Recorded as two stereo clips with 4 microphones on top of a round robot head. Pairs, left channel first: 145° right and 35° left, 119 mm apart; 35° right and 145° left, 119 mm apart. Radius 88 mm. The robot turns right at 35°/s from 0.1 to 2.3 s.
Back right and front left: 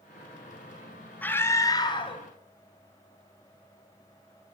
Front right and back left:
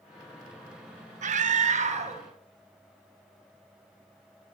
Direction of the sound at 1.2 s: 140° left.